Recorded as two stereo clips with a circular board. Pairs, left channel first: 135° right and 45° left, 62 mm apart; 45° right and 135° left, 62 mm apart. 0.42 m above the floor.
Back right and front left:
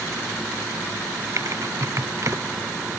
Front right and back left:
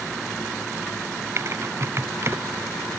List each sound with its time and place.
1.4 s typing on a keyboard: 85° left